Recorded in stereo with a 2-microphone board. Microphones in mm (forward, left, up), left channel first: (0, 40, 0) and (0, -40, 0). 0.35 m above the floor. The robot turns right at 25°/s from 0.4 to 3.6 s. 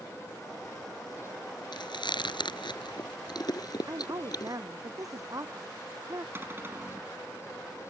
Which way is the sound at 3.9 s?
50° right (ahead or behind).